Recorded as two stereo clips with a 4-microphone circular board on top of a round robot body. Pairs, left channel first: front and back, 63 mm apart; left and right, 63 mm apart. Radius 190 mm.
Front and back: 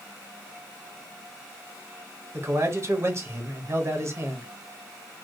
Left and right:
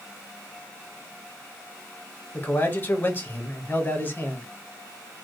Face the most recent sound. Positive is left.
turn(degrees=145)